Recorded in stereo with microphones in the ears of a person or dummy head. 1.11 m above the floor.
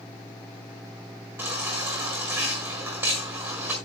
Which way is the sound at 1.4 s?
15° right (ahead or behind).